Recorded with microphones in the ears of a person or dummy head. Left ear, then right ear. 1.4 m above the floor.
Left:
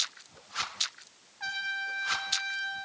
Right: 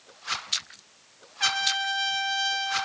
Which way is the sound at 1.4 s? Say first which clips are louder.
Right 8 dB; 70° right (ahead or behind).